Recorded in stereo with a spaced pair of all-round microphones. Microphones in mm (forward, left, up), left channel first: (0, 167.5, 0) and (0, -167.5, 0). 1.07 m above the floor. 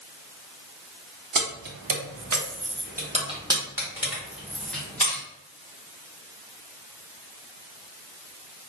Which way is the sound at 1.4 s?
75° right (ahead or behind).